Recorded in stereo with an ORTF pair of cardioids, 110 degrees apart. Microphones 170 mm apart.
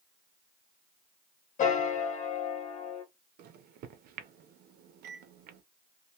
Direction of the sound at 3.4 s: 70° right.